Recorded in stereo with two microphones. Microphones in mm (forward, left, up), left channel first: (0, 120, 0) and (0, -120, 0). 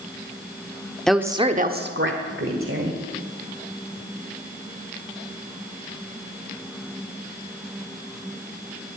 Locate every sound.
1.1 s a woman speaking: 5° left (ahead or behind), 0.9 m; by 3.0 s 65° right (ahead or behind), 2.5 m